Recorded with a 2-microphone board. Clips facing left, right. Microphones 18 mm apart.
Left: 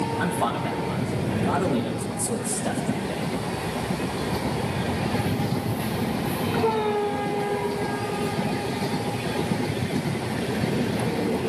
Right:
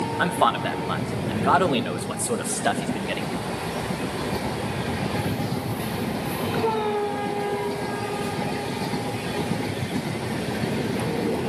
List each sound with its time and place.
0.2 s a man speaking: 35° right (ahead or behind), 1.4 m; by 3.3 s 70° right (ahead or behind), 1.9 m